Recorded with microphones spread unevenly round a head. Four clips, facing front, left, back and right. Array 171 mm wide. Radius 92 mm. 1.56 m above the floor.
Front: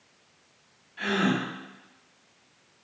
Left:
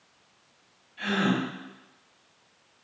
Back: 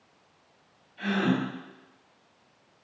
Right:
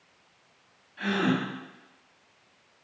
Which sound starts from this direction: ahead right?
A gasp, at 1.0 s.